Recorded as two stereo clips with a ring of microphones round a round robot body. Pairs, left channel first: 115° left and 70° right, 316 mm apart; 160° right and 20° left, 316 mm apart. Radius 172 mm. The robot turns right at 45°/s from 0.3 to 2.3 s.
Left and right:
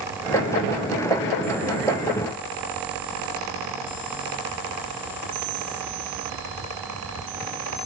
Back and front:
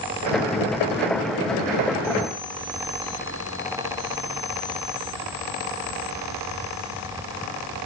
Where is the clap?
I don't hear a clap.